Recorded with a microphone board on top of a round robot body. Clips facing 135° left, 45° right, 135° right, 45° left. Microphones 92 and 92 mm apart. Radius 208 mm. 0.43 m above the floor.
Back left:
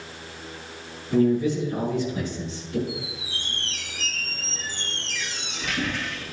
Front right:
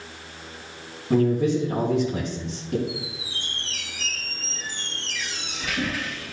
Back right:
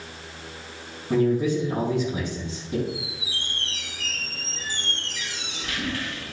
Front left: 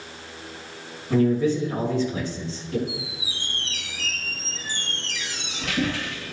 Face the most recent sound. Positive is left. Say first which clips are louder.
# even, back right 1 dB
turn(degrees=40)